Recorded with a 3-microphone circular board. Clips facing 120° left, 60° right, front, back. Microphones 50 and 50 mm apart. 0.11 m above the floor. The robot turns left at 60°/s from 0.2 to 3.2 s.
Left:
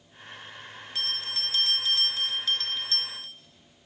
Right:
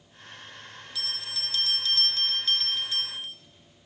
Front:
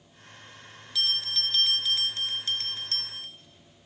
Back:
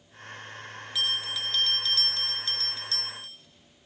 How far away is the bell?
About 1.0 m.